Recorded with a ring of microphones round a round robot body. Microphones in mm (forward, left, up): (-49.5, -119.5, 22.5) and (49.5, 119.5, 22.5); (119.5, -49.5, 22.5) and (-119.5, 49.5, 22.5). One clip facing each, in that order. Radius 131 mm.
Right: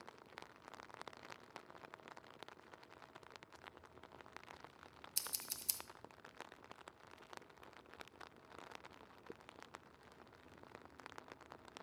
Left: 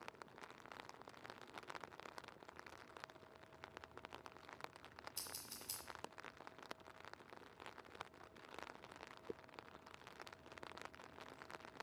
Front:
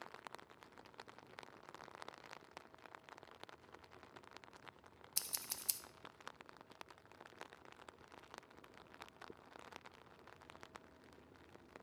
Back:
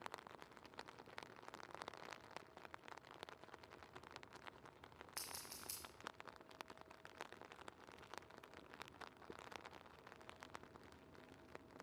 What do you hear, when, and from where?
5.2 s scissors: 60° right, 0.6 m